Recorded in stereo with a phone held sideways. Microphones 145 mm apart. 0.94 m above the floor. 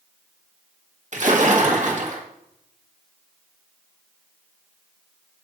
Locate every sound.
1.1 s a splash: 55° right (ahead or behind), 1.7 m